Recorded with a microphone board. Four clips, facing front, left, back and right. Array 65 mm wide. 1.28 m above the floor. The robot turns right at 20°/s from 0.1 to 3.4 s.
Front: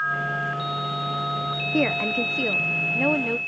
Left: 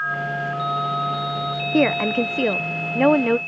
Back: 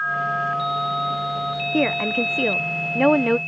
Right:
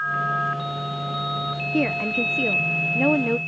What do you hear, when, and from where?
1.7 s a woman speaking: 100° left; by 3.4 s 130° left